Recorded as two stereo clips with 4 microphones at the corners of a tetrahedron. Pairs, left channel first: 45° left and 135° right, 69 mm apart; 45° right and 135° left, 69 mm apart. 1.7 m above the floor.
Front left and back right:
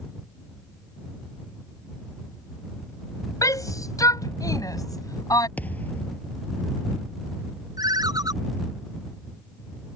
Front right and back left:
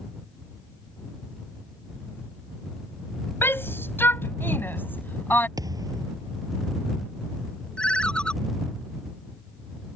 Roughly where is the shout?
Ahead.